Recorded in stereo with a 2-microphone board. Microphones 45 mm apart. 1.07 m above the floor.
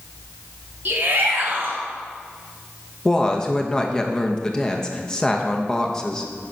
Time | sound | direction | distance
0.8 | a shout | 45° right (ahead or behind) | 2.5 m
3.0 | a woman speaking | 15° left (ahead or behind) | 1.0 m